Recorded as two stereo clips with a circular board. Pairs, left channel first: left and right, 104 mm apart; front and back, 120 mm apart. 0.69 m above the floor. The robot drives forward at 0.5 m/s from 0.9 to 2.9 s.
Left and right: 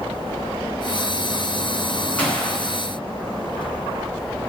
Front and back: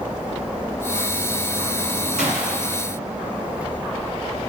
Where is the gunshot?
165° left, 3.5 m; by 2.8 s 170° left, 3.5 m.